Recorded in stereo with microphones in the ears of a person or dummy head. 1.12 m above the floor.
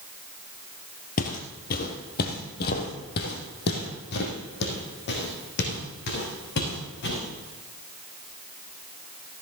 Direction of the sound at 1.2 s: 40° left (ahead or behind).